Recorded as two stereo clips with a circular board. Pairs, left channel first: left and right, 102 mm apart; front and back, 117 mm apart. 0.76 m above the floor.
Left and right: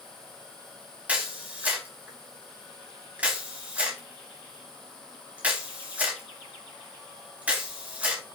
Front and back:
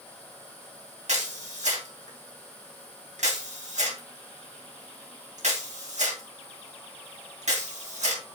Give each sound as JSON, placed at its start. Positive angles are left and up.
{"t": 1.1, "sound": "a camera shutter", "azimuth_deg": -165, "distance_m": 3.0}